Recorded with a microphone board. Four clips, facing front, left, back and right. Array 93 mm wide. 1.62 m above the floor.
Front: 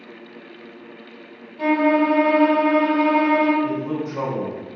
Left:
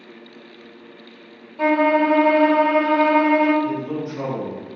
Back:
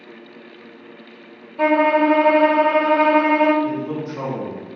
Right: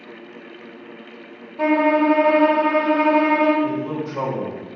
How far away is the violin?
About 3 m.